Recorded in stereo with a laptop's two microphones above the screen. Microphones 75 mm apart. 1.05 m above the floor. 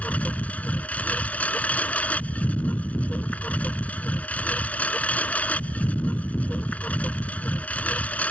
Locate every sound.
0.0 s a lawn mower: 20° left (ahead or behind)